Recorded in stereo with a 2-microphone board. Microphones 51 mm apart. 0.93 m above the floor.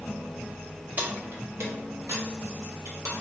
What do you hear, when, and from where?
1.0 s keys jangling: 35° right (ahead or behind), 0.8 m; by 3.1 s 85° right, 1.6 m